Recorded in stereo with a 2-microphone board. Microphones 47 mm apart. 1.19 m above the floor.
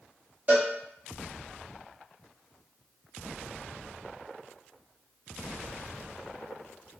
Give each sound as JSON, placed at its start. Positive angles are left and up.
{"t": 0.5, "sound": "a cowbell", "side_deg": -35, "distance_m": 1.6}